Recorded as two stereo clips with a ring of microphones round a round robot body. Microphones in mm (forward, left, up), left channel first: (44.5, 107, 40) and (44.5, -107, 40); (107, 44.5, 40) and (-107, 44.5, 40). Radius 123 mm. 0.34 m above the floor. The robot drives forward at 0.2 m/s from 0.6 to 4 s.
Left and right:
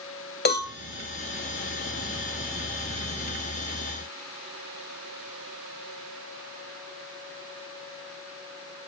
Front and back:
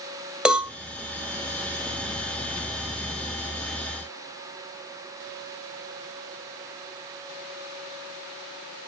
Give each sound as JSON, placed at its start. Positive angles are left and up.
{"t": 0.5, "sound": "a cowbell", "azimuth_deg": 95, "distance_m": 2.0}